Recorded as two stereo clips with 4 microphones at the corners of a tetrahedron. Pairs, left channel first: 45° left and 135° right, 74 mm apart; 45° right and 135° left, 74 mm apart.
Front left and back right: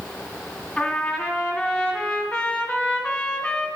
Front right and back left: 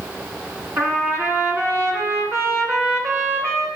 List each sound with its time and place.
0.8 s a trumpet: 115° left, 1.7 m